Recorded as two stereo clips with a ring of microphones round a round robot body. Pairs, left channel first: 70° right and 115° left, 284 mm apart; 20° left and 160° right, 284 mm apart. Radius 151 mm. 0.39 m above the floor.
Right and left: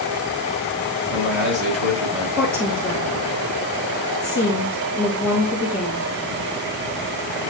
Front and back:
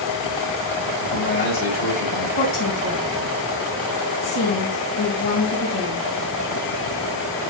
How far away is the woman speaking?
About 4 m.